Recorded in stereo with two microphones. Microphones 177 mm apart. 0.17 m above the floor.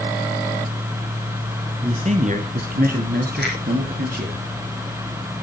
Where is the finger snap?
75° right (ahead or behind), 6.5 m.